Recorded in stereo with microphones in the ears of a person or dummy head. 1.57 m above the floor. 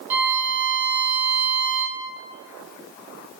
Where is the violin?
15° right (ahead or behind), 0.8 m.